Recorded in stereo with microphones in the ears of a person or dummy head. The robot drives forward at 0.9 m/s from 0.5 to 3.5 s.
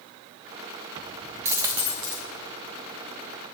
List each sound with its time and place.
1.4 s a dropped coin: 15° right (ahead or behind), 0.8 m